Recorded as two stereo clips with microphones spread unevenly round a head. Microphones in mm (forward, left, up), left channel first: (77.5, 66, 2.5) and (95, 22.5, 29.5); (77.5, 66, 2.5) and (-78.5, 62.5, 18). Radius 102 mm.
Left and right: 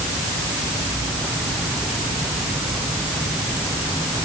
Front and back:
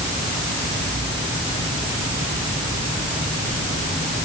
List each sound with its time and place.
Only background noise.